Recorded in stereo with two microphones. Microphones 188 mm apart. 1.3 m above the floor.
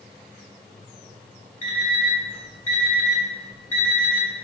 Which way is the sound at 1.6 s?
40° left (ahead or behind).